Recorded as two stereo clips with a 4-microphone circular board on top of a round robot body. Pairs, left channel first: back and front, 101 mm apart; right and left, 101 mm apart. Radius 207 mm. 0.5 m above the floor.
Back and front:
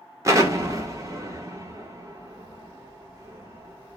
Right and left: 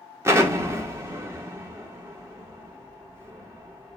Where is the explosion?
40° left, 1.3 m.